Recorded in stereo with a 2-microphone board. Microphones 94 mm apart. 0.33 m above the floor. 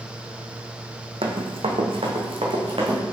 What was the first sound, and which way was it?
Running footsteps, 75° right (ahead or behind).